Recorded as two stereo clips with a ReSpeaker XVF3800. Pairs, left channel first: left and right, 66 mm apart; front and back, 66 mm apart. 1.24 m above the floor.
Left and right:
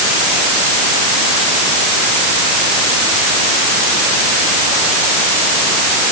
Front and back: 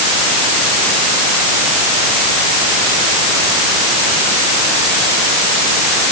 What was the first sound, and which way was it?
Only background noise.